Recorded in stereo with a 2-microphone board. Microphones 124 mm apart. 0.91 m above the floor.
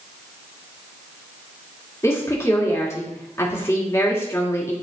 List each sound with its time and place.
2.0 s a woman speaking: 25° left (ahead or behind), 2 m